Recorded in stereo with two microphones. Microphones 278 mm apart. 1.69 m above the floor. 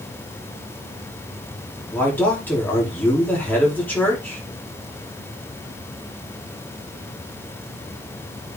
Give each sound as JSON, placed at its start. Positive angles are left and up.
{"t": 1.9, "sound": "a man speaking", "side_deg": 5, "distance_m": 4.5}